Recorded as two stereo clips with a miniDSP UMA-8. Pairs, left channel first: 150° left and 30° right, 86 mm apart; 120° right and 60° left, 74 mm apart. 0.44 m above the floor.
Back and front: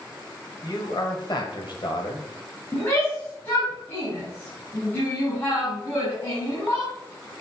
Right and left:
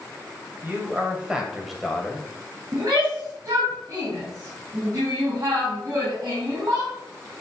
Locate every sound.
0.6 s a man speaking: 120° left, 2.5 m; by 2.3 s 165° left, 2 m
2.7 s a shout: 90° left, 3.5 m